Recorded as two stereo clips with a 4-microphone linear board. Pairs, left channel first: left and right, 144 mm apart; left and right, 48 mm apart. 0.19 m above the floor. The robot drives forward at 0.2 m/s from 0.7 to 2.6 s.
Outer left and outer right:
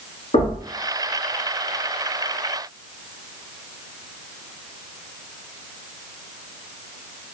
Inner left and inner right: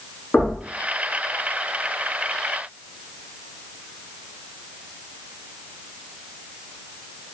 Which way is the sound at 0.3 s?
55° left (ahead or behind).